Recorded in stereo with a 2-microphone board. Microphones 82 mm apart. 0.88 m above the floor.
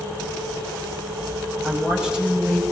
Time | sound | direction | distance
1.6 | a woman speaking | 5° right (ahead or behind) | 6 m